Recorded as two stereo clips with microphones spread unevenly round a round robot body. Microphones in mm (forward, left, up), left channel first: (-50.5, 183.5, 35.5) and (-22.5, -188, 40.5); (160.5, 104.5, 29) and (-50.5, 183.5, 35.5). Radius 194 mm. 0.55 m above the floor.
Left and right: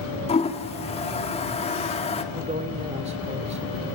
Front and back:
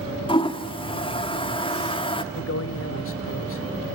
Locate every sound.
0.3 s a toilet flushing: 30° left, 1.6 m
2.3 s a man speaking: 15° right, 1.7 m